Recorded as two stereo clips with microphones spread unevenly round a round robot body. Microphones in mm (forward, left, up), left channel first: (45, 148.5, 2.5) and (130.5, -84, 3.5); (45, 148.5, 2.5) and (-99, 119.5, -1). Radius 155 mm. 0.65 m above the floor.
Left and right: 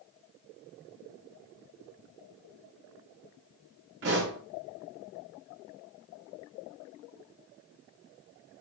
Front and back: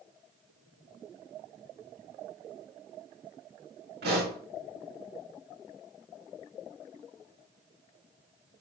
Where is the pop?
130° right, 4.5 m.